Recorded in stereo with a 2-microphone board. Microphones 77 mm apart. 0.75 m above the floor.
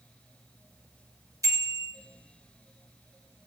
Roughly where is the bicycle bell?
Right.